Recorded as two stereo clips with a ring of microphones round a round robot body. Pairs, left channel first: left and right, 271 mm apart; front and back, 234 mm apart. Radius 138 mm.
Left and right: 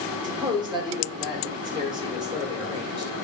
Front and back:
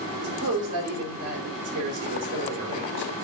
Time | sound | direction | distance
0.2 | a man speaking | 165° right | 3 m